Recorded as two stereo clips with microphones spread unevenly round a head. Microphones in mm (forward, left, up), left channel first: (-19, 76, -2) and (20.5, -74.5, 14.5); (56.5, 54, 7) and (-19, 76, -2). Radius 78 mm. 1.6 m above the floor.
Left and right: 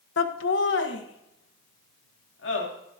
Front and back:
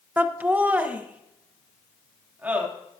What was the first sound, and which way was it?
Laughter, 95° left.